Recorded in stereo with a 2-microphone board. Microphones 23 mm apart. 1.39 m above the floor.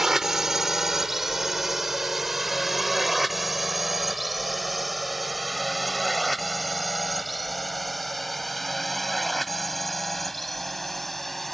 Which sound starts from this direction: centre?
A drone, at 0.0 s.